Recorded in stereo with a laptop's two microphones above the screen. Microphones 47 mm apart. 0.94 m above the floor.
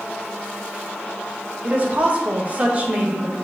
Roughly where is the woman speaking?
Right.